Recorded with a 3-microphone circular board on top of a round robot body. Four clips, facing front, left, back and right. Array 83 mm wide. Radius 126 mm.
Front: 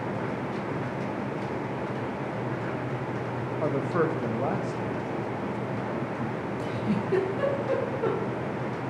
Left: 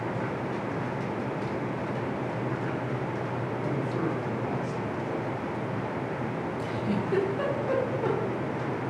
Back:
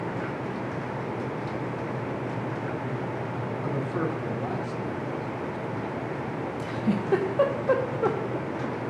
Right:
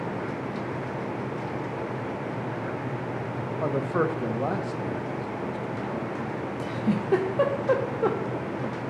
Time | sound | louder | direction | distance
3.6 | a man speaking | right 6 dB, front 4 dB | 45° right | 0.9 m
6.6 | a giggle | right 4 dB, back 2 dB | 130° right | 0.7 m